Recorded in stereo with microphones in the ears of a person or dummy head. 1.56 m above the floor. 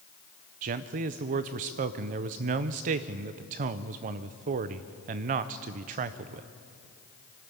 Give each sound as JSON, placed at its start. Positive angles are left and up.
{"t": 0.6, "sound": "a man speaking", "side_deg": -40, "distance_m": 0.6}